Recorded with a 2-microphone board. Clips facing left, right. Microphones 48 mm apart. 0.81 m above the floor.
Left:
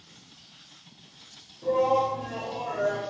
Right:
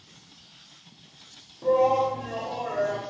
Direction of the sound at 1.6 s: 60° right (ahead or behind).